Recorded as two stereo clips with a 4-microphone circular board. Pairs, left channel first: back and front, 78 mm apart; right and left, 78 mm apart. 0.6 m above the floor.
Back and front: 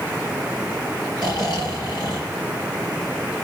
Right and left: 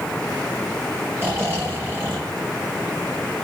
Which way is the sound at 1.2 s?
150° left.